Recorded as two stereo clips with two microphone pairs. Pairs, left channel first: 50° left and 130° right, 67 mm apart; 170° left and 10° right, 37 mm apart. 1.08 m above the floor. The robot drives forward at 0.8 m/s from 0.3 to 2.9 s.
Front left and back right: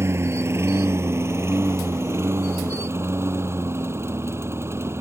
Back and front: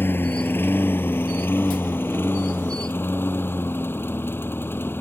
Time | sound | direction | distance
0.0 | a lawn mower | 175° right | ?